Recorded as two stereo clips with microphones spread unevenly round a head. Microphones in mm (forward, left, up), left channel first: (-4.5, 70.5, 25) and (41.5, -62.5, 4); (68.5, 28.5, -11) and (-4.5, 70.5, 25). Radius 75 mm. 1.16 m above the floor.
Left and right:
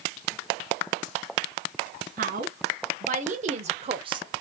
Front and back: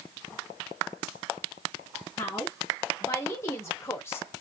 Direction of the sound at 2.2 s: 85° right.